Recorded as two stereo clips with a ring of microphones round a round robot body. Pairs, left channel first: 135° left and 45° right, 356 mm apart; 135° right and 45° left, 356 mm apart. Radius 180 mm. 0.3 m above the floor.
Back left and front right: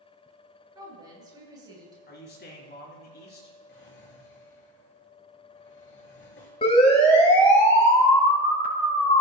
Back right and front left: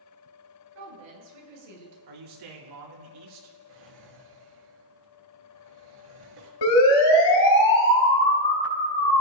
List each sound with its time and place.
0.8 s a woman speaking: 35° left, 6.5 m
2.1 s a man speaking: 70° left, 4 m
3.7 s a drawer: 75° left, 3.5 m
6.6 s a siren: 150° right, 6 m; by 9.2 s 155° right, 4.5 m